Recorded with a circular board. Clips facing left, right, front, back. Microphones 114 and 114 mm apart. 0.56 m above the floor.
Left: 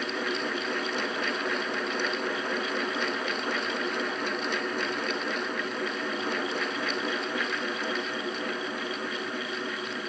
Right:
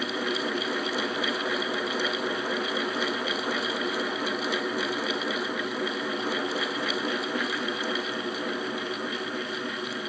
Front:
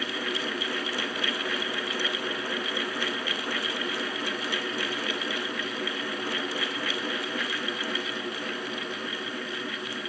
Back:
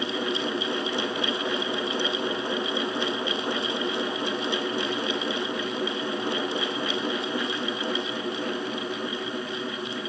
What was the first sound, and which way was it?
Only background noise.